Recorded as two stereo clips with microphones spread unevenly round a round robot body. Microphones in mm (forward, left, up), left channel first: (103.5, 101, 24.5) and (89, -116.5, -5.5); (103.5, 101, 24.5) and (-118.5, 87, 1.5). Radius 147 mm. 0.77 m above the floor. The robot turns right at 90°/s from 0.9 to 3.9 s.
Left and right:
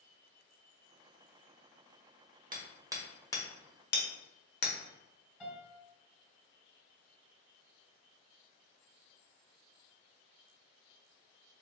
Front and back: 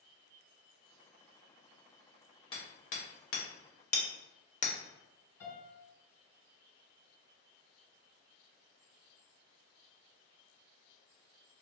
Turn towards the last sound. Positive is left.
turn(degrees=-5)